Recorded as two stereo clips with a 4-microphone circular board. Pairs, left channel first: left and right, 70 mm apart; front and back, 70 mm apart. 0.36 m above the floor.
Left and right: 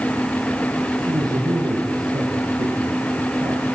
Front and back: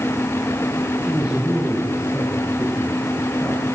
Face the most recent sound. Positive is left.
turn(degrees=-95)